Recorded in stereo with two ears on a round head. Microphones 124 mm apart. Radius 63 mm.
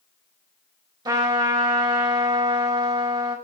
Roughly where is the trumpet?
Right.